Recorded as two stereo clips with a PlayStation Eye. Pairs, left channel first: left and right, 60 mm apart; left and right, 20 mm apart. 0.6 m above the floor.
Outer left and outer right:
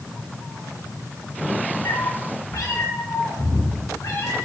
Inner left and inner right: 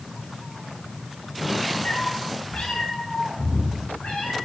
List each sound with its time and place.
1.9 s a cat meowing: 70° left (ahead or behind), 0.8 m; by 4.3 s 75° left (ahead or behind), 4.5 m